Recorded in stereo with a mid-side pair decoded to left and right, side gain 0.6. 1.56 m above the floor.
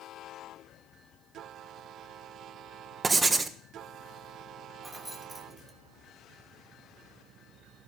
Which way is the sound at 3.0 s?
25° right.